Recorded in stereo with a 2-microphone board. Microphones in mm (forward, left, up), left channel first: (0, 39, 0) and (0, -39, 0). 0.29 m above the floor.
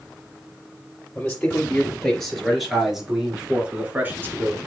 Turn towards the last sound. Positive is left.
turn(degrees=-30)  # may be behind; listen again after turning